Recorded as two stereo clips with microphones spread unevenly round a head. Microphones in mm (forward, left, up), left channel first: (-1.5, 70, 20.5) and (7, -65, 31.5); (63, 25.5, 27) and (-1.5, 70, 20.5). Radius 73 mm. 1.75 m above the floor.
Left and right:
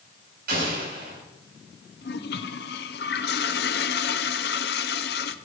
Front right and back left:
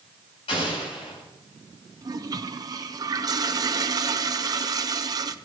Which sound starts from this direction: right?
An explosion, at 0.5 s.